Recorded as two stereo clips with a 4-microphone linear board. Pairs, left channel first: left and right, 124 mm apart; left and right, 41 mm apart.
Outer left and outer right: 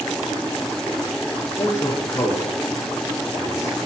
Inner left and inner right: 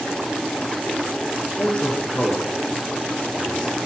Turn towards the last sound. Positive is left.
turn(degrees=25)  # may be behind; listen again after turning